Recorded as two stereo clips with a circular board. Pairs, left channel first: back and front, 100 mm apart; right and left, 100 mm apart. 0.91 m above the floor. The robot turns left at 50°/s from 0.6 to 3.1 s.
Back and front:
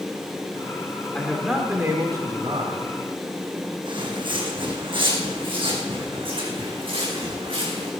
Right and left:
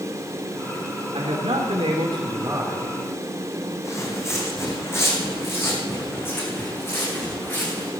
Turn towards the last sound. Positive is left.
turn(degrees=-20)